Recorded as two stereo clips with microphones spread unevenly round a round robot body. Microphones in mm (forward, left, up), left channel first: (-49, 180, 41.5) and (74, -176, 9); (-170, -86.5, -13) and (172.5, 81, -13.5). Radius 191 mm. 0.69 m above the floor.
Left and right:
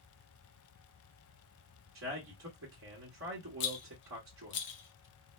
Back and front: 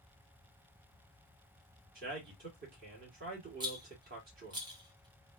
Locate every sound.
1.9 s a man speaking: 35° right, 1.4 m
3.6 s a rattle: 90° left, 0.5 m